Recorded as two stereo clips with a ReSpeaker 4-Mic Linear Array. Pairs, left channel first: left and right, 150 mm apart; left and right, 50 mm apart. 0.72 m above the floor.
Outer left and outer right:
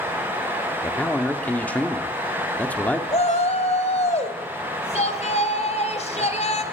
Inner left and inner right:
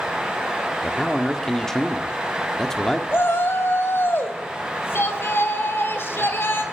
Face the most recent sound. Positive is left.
turn(degrees=45)  # may be behind; listen again after turning